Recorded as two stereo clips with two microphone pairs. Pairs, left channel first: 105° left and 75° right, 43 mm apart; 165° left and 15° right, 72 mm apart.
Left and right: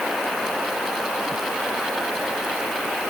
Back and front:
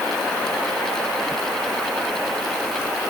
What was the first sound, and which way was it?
Only background noise.